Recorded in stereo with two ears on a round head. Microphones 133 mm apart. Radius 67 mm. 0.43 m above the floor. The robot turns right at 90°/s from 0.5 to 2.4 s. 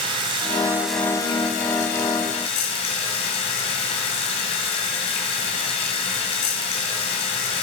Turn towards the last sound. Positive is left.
turn(degrees=135)